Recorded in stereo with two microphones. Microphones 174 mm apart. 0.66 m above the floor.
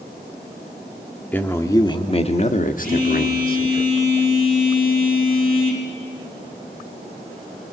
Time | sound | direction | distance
1.3 | a man speaking | 10° left (ahead or behind) | 1.3 m
2.8 | a phone buzzing | 10° left (ahead or behind) | 4.5 m